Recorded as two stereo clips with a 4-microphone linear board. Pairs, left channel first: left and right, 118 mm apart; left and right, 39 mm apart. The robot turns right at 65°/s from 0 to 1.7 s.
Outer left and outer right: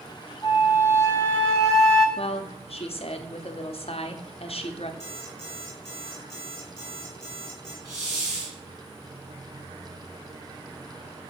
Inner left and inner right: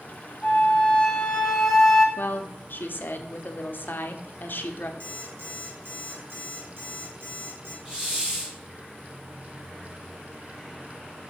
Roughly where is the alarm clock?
Right.